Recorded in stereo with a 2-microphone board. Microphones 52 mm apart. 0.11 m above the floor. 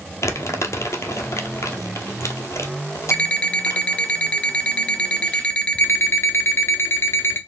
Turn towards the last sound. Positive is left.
turn(degrees=55)  # may be behind; listen again after turning